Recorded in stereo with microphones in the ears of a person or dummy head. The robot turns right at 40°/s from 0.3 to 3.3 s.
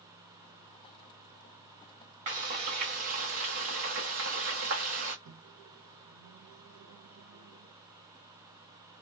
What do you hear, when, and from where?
2.3 s frying: 140° right, 0.7 m; by 5.2 s 95° right, 0.7 m
5.2 s a microwave: 75° right (ahead or behind), 0.6 m